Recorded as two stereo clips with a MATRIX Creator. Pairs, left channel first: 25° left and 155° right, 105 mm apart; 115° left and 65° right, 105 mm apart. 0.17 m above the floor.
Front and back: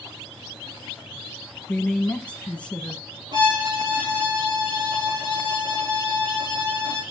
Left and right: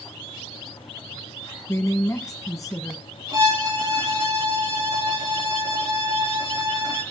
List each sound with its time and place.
1.7 s a man speaking: 95° left, 1.3 m
3.3 s a violin: 110° right, 5.5 m